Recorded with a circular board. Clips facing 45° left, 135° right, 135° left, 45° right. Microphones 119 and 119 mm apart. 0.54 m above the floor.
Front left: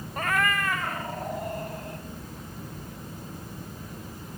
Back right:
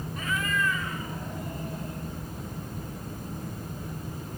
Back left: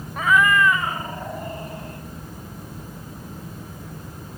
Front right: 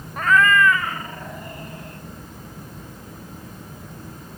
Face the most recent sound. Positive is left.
turn(degrees=75)